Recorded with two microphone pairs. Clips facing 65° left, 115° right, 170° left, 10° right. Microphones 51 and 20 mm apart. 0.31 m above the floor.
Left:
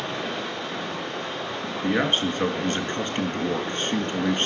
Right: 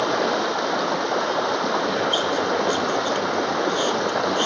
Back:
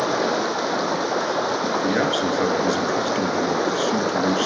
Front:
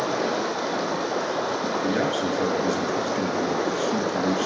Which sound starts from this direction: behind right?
Running water, at 0.0 s.